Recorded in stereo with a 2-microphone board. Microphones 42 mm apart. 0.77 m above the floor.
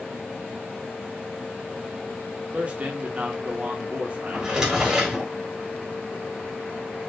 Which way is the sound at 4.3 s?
15° right (ahead or behind).